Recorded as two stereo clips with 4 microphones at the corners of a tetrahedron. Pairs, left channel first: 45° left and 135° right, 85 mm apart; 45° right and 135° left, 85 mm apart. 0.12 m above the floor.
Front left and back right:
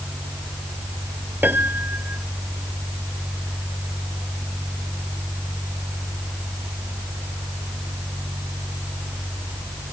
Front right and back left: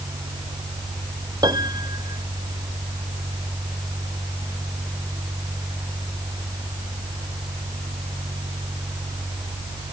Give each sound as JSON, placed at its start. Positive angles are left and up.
{"t": 1.4, "sound": "a piano", "azimuth_deg": 160}